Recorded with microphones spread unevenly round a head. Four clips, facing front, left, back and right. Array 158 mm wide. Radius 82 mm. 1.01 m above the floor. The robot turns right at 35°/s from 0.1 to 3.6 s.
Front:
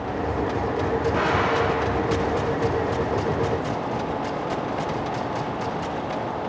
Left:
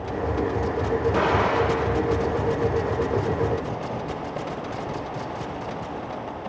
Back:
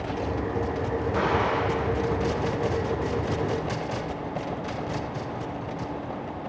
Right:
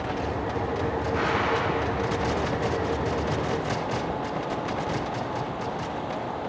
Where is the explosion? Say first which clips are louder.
Left 4 dB, even; 70° left, 1.2 m; by 2.8 s 125° left, 1.2 m.